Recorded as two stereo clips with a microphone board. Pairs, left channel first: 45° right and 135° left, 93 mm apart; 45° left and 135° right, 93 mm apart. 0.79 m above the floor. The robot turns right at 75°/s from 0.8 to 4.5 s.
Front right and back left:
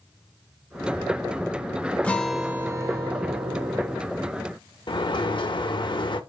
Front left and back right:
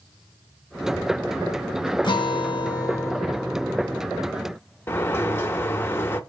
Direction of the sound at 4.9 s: 20° right.